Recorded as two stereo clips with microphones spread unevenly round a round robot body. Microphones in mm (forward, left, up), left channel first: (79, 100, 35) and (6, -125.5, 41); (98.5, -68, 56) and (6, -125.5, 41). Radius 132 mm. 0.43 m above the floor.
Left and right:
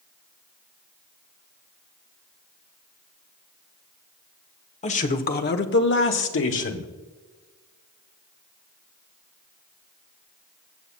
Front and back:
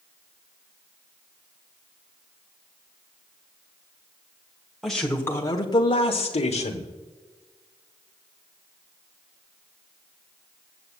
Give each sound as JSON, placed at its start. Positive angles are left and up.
{"t": 4.8, "sound": "a man speaking", "azimuth_deg": 130, "distance_m": 1.1}